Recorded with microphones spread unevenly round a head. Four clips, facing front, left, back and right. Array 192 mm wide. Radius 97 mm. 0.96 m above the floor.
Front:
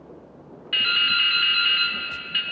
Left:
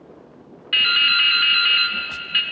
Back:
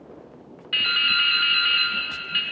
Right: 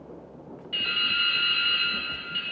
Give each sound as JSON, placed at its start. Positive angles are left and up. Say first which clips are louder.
{"t": 0.7, "sound": "dripping", "louder": "left 9 dB, even", "azimuth_deg": 95, "distance_m": 0.7}